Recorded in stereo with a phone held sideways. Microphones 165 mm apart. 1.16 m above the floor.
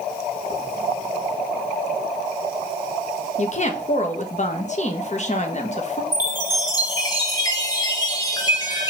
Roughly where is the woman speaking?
Left.